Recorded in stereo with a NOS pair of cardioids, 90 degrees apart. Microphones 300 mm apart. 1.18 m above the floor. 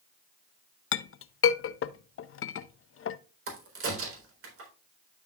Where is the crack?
45° right, 4 m.